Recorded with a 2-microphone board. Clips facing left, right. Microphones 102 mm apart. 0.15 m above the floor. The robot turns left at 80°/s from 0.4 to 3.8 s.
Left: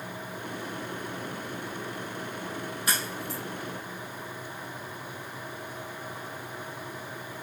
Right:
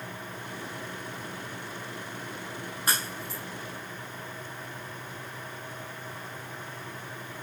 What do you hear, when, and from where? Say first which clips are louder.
2.9 s a crack: right 2 dB; 40° right (ahead or behind), 5 m; by 3.4 s centre (ahead or behind), 5 m